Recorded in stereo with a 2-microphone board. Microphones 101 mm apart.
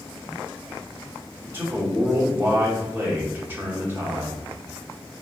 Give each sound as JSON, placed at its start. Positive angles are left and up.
{"t": 1.4, "sound": "a man speaking", "side_deg": -20, "distance_m": 1.0}